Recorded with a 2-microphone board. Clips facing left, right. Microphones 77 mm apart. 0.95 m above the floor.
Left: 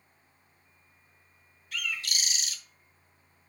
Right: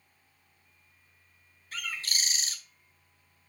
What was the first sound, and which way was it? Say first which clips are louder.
A bird: left 1 dB; 35° right (ahead or behind).